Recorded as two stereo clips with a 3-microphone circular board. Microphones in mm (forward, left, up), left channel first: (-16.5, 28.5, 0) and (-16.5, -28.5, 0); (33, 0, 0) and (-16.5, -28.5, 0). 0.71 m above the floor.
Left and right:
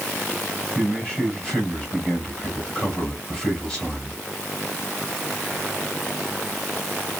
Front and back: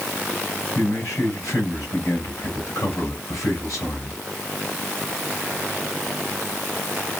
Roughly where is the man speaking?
Ahead.